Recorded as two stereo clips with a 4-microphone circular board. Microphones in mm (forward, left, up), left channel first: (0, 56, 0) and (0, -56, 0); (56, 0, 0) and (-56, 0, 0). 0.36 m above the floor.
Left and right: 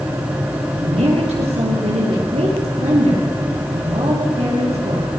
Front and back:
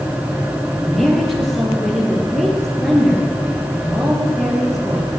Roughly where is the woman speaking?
Right.